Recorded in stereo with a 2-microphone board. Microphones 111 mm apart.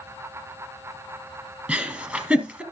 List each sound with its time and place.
1.7 s a giggle: 10° right (ahead or behind), 2.5 m